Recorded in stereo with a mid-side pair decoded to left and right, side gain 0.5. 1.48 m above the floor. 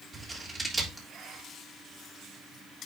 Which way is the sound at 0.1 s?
25° right.